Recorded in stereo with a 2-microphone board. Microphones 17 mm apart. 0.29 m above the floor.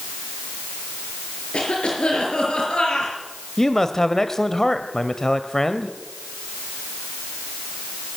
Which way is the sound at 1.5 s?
65° left (ahead or behind).